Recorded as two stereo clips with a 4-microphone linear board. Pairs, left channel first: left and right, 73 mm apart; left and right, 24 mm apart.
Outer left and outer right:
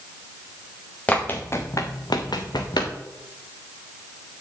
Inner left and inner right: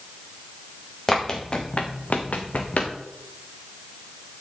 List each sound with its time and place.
1.1 s running footsteps: 20° left (ahead or behind), 1.7 m; by 2.9 s 75° left (ahead or behind), 2.0 m